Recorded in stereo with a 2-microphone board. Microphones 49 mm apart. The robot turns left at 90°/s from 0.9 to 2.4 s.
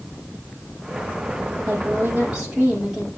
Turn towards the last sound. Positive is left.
turn(degrees=-160)